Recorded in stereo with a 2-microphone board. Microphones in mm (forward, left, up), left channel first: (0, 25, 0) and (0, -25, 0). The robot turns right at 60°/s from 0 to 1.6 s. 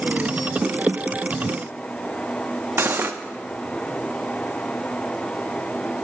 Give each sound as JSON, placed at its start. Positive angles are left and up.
{"t": 2.8, "sound": "cutlery clinking", "side_deg": -50, "distance_m": 0.5}